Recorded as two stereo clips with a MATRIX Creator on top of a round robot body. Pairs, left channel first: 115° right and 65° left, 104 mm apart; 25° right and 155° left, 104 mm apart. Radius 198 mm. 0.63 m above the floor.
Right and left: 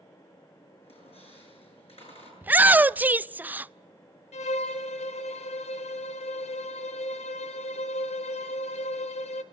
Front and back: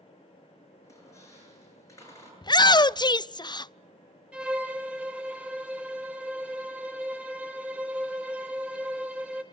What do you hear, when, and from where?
0.8 s a squeak: 85° right, 8 m
2.4 s a shout: straight ahead, 0.6 m
4.3 s a violin: 125° right, 0.6 m